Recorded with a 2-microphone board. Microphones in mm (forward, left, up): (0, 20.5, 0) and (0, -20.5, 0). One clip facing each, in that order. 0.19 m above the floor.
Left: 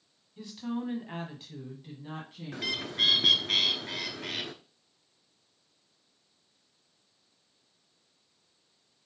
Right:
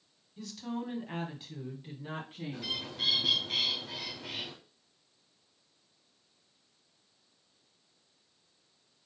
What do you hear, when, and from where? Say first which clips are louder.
0.4 s a woman speaking: left 3 dB; 20° left (ahead or behind), 1.1 m; by 2.8 s 30° right (ahead or behind), 1.4 m
2.5 s a bird: left 7 dB; 70° left (ahead or behind), 0.7 m